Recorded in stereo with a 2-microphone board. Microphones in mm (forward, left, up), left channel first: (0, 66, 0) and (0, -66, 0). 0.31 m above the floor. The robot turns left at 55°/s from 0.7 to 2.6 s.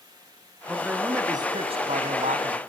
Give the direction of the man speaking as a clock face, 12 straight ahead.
12 o'clock.